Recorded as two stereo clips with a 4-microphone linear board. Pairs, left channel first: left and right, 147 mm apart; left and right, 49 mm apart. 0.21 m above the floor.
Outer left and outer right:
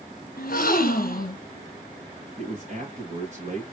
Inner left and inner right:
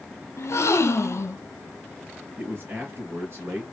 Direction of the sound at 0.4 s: 75° left (ahead or behind).